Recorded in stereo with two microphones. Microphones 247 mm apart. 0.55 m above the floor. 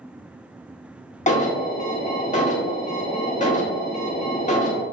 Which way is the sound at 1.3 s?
30° left (ahead or behind).